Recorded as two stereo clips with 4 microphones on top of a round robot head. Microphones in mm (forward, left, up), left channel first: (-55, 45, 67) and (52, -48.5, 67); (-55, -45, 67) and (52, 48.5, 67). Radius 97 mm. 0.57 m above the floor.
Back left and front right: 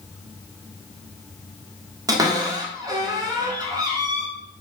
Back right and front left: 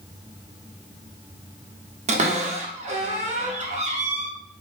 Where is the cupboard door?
20° left, 1.3 m.